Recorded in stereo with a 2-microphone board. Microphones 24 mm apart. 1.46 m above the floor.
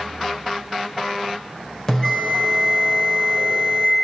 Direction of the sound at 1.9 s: 25° left (ahead or behind).